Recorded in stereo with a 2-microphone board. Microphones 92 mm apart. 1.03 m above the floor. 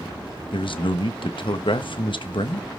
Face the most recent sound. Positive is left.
turn(degrees=65)  # may be behind; listen again after turning